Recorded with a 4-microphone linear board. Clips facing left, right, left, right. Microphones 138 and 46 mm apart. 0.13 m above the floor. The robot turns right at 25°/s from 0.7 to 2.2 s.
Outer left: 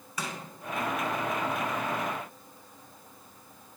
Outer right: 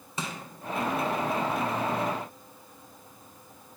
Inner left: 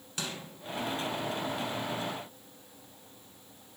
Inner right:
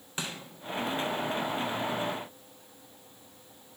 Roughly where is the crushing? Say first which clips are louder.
Outer right 1 dB, inner right 1 dB; right.